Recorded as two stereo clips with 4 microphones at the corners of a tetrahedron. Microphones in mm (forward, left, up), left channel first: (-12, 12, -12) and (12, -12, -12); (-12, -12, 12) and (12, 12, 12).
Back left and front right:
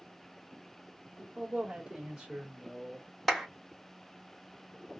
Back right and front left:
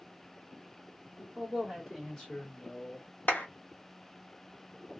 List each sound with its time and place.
1.2 s a man speaking: straight ahead, 1.4 m; by 3.1 s 125° right, 1.5 m
3.3 s a clap: 135° right, 1.2 m